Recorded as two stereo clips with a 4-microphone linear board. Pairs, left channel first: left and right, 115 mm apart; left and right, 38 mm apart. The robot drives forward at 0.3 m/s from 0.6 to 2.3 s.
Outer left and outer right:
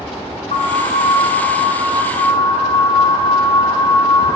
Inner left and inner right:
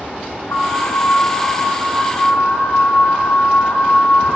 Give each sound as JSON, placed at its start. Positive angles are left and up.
{"t": 0.5, "sound": "an alarm", "side_deg": 75, "distance_m": 3.0}